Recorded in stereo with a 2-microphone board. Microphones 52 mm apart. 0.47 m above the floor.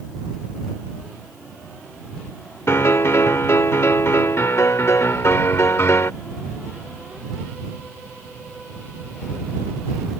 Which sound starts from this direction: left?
A piano, at 2.7 s.